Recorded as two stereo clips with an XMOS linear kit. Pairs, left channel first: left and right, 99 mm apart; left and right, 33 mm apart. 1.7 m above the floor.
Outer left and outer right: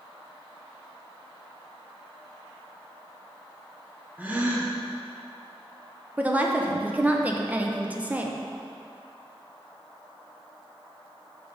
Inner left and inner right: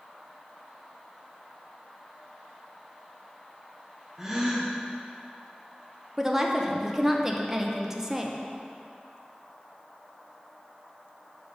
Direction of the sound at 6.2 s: 15° right (ahead or behind).